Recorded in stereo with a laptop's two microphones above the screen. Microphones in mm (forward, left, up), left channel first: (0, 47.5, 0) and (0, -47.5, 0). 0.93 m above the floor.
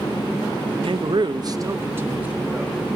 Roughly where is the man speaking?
Right.